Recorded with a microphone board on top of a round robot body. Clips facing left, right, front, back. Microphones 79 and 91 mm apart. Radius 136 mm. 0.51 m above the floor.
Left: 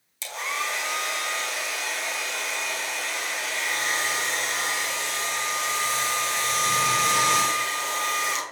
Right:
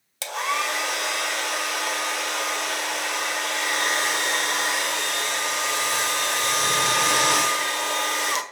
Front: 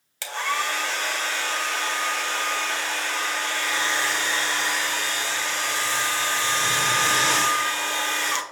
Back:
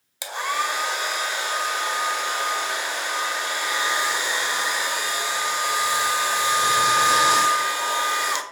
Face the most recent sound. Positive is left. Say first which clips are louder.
# right 5 dB, back 1 dB
turn(degrees=-105)